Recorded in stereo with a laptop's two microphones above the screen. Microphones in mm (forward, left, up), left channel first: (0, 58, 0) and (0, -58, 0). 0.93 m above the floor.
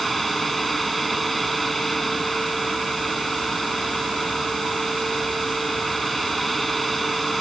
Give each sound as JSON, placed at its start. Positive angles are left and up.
{"t": 0.0, "sound": "a fan", "side_deg": 0}